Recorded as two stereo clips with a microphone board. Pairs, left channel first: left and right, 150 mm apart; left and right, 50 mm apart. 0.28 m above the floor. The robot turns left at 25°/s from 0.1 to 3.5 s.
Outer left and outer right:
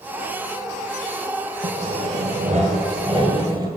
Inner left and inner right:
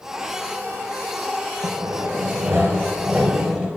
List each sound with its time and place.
1.6 s sawing: 105° right, 1.3 m; by 3.7 s 155° right, 1.3 m